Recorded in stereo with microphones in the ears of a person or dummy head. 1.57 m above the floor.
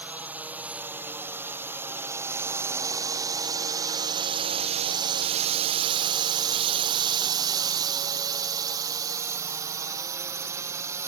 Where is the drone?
5° right (ahead or behind); by 11.1 s 15° right (ahead or behind).